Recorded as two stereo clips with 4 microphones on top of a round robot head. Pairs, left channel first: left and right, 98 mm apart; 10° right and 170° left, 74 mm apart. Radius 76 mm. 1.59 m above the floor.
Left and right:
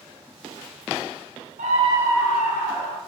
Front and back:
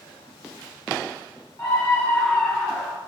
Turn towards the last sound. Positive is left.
turn(degrees=80)